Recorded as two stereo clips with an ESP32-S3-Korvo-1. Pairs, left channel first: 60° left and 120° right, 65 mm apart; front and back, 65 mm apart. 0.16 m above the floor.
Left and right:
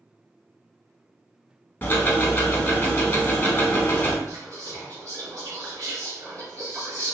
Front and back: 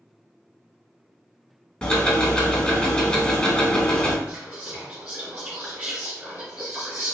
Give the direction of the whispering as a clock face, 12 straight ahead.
4 o'clock.